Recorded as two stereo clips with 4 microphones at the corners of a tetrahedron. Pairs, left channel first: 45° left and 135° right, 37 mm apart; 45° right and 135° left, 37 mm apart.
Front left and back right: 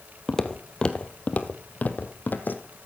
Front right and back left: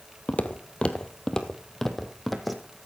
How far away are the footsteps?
About 1.1 m.